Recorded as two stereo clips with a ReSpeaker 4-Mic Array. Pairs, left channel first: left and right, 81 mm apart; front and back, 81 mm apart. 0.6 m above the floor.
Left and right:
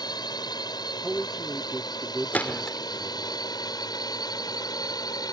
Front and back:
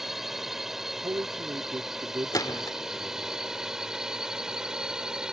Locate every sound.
0.0 s a drone: 95° left; by 5.3 s 100° left
1.0 s a man speaking: 175° right
2.3 s a gunshot: 25° left